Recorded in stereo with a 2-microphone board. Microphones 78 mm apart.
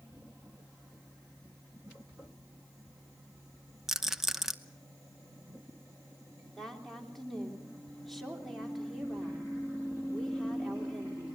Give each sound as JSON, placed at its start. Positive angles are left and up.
{"t": 3.9, "sound": "a rattle", "side_deg": -5, "distance_m": 0.8}
{"t": 6.6, "sound": "a woman speaking", "side_deg": 0, "distance_m": 3.0}